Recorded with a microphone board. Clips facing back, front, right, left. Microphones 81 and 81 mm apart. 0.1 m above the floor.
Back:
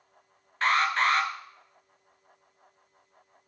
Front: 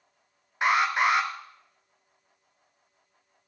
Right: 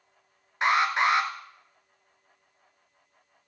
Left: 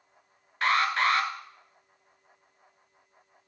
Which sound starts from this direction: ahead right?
An alarm, at 0.6 s.